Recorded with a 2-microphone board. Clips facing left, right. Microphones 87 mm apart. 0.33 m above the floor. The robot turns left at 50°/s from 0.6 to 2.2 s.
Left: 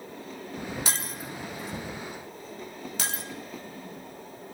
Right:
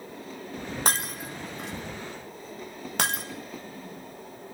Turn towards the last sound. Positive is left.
turn(degrees=-60)  # may be behind; listen again after turning